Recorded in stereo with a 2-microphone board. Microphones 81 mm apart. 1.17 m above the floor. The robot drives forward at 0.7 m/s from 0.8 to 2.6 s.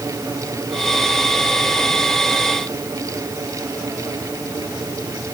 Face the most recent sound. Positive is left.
No sound to turn to.